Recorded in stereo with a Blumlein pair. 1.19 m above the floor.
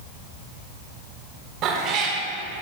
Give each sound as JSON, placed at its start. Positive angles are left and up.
{"t": 1.6, "sound": "a cat meowing", "azimuth_deg": -35, "distance_m": 1.7}